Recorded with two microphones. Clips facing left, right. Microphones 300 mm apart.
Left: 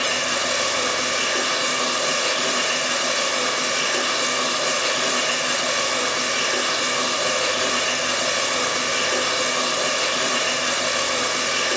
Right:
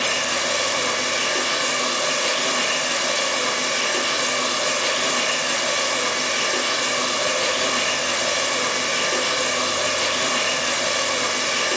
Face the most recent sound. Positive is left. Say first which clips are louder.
# even
turn(degrees=10)  # may be behind; listen again after turning